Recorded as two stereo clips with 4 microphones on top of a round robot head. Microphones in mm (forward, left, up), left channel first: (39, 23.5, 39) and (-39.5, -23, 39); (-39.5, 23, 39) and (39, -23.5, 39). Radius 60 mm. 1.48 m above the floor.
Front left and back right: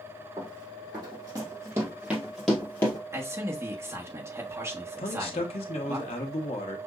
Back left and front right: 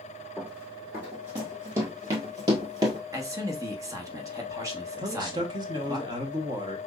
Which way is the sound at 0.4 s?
105° right.